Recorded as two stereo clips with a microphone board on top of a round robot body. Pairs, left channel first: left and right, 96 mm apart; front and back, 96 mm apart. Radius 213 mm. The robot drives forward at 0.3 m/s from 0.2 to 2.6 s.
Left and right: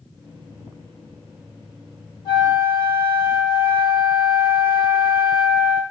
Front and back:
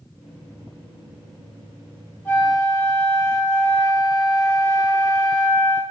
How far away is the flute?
About 1.1 m.